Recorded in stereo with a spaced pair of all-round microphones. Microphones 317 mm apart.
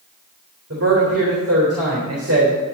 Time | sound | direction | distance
0.7 | a man speaking | 45° right (ahead or behind) | 3.5 m